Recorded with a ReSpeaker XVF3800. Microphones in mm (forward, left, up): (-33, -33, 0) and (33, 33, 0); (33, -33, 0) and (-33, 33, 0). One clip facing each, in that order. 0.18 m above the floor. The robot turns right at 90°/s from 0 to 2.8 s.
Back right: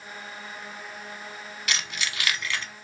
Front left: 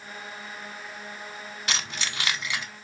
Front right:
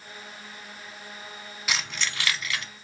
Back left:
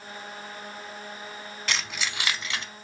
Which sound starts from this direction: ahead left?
Keys jangling, at 1.7 s.